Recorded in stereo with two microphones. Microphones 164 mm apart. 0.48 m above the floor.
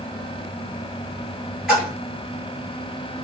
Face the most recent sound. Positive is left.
turn(degrees=-5)  # may be behind; listen again after turning